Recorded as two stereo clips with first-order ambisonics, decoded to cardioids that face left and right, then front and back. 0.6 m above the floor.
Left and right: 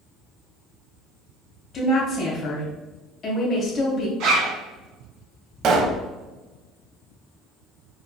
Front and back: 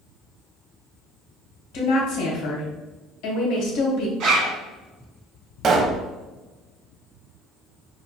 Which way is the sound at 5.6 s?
125° right.